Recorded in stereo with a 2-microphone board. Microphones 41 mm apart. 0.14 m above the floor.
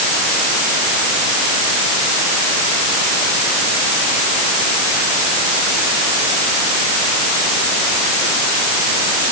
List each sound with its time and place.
Only background noise.